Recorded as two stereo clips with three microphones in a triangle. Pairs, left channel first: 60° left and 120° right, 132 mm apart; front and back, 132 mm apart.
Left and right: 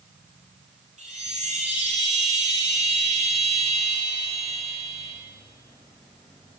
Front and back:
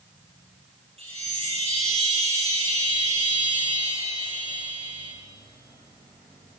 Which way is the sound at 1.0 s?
140° right.